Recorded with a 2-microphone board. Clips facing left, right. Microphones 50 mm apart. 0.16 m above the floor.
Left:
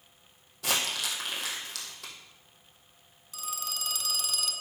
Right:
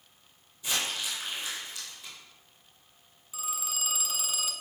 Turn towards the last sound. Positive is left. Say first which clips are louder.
# right 1 dB
turn(degrees=-15)  # may be behind; listen again after turning